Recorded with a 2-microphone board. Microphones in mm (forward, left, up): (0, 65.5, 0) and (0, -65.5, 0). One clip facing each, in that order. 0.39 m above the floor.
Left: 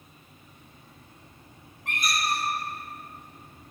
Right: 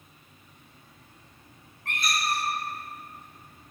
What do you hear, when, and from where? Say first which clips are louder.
1.9 s a squeak: left 1 dB; 15° left (ahead or behind), 1.2 m